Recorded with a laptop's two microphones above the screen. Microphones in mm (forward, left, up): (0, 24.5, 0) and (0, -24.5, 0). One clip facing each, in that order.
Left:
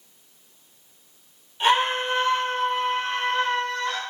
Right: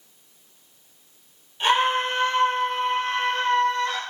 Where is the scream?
10° left (ahead or behind), 4 m; by 4.0 s 5° left (ahead or behind), 2.5 m.